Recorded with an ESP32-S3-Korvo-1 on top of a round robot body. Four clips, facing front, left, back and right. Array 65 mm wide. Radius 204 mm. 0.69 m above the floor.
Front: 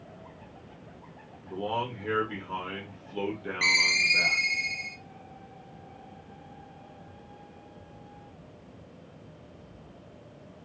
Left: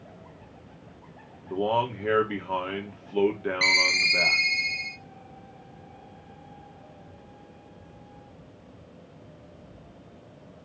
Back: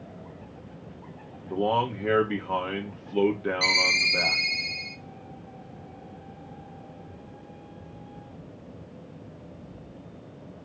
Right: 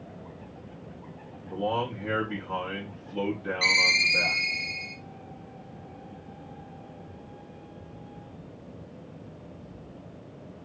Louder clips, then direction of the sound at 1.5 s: Left 3 dB, back 6 dB; 130° left.